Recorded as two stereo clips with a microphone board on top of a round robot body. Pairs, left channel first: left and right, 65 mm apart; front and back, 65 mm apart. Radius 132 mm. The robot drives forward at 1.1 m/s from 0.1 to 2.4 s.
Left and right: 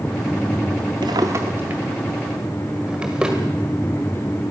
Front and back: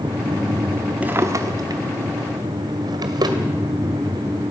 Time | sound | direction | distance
1.0 | a drawer | 115° right | 0.5 m